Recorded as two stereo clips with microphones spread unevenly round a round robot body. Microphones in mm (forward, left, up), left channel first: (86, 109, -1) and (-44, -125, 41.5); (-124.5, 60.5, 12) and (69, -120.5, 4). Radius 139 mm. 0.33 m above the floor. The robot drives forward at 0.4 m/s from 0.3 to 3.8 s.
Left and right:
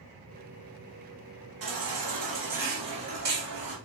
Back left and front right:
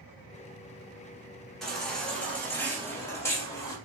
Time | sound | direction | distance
1.6 | a baby crying | 135° right | 2.5 m